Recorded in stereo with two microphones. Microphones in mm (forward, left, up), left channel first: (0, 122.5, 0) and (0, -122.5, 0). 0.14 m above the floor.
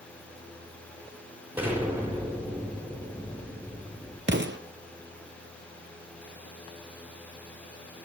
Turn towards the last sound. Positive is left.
turn(degrees=-50)  # may be behind; listen again after turning